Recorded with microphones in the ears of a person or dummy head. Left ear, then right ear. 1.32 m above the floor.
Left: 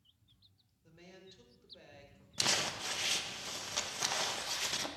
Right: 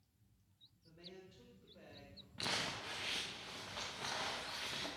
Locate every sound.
0.8 s a woman speaking: 35° left (ahead or behind), 4.5 m; by 2.3 s 20° left (ahead or behind), 4.5 m
2.4 s crumpling: 85° left, 1.2 m